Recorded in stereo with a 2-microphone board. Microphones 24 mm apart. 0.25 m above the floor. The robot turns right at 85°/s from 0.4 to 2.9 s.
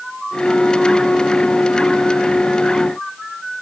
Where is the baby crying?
No baby crying in this recording.